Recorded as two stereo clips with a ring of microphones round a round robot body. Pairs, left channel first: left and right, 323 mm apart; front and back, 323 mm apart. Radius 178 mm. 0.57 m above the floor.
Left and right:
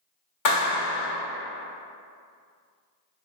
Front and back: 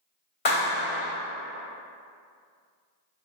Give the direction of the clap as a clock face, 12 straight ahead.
10 o'clock.